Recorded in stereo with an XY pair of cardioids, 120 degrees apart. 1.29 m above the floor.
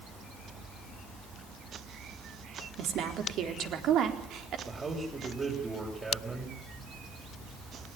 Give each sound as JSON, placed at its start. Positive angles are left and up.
{"t": 2.8, "sound": "a woman speaking", "azimuth_deg": -65, "distance_m": 4.0}
{"t": 4.7, "sound": "a man speaking", "azimuth_deg": -20, "distance_m": 6.5}